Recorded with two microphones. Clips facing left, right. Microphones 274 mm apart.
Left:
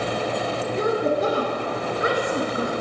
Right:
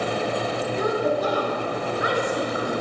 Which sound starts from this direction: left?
A woman speaking, at 0.8 s.